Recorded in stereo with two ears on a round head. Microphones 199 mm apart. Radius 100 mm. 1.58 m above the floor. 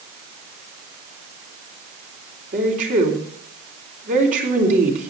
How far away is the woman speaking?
About 4 m.